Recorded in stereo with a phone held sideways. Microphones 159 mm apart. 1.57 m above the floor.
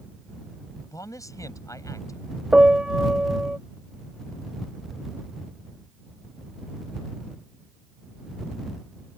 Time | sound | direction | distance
0.8 | a man speaking | 20° left (ahead or behind) | ?
2.5 | a piano | 5° right (ahead or behind) | ?